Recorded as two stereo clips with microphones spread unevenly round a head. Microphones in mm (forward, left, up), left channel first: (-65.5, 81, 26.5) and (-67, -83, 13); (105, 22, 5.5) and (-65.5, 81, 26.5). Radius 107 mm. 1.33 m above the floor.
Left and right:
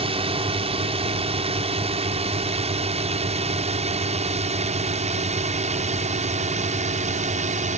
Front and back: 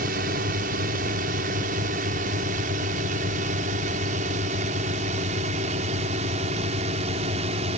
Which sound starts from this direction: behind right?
A drone, at 0.0 s.